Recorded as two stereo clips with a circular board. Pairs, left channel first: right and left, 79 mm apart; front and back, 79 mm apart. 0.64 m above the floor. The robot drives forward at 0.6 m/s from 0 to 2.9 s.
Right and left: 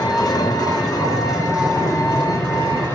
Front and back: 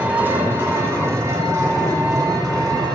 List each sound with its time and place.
0.0 s an engine running: 115° right, 2 m; by 3.0 s 145° right, 3 m